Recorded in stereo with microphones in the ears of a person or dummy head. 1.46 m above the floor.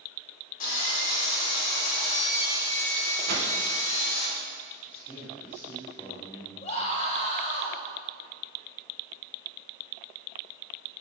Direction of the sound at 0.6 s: 50° left (ahead or behind).